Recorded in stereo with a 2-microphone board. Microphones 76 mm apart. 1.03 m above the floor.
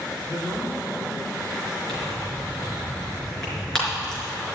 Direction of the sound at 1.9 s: 10° left (ahead or behind).